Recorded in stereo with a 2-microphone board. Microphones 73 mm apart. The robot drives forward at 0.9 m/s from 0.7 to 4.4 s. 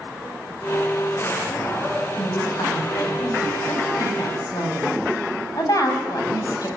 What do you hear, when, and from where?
2.2 s a woman speaking: 70° left (ahead or behind), 6 m; by 6.7 s 55° left (ahead or behind), 7 m